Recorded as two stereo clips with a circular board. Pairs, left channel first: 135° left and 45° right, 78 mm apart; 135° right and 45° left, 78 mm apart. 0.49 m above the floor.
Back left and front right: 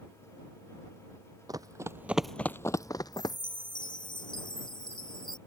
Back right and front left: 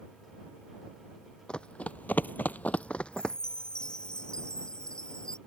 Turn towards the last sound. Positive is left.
turn(degrees=145)